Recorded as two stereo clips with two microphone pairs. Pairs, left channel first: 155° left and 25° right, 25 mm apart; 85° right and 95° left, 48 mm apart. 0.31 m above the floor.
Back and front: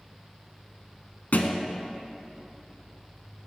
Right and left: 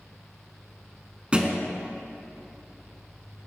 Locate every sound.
1.3 s a thud: 160° left, 0.9 m